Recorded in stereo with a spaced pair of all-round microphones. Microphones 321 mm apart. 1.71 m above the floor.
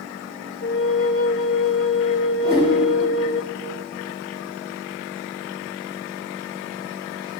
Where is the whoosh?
30° right (ahead or behind), 6.5 m.